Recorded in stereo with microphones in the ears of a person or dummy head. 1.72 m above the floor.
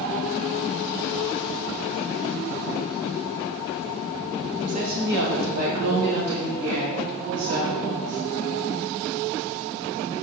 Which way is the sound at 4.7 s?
45° right (ahead or behind).